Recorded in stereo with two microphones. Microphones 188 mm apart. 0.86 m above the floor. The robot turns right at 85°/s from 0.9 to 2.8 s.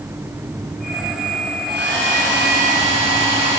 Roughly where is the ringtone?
I don't hear a ringtone.